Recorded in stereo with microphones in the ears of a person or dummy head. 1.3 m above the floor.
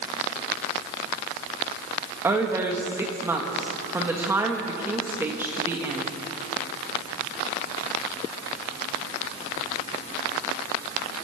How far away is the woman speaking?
About 2 m.